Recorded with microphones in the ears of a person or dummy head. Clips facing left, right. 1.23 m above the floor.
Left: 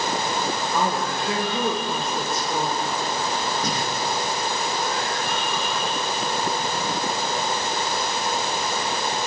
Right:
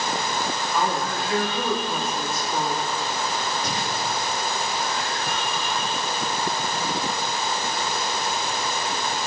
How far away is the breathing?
About 1.2 m.